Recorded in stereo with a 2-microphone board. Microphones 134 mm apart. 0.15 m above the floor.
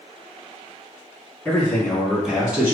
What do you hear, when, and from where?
1.4 s a man speaking: 15° left (ahead or behind), 1.8 m; by 2.7 s 15° right (ahead or behind), 1.5 m